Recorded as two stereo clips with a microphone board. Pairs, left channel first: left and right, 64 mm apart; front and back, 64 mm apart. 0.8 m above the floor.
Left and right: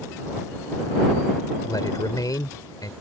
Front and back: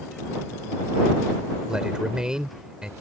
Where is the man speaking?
100° left.